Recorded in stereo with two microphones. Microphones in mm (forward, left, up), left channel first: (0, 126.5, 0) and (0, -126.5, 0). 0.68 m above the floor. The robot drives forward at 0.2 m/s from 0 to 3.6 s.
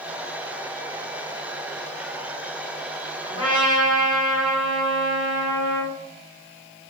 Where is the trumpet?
25° left (ahead or behind), 1.8 m.